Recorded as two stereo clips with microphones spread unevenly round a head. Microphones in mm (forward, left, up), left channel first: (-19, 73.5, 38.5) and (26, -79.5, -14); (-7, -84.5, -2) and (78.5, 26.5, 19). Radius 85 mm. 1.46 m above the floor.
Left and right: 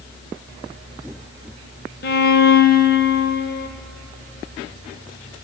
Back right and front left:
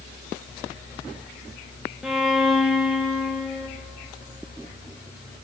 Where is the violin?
140° left, 1.3 m.